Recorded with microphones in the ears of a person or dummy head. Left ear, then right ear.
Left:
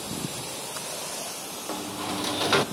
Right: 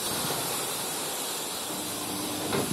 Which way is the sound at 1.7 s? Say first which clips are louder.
Left 2 dB; 60° left (ahead or behind).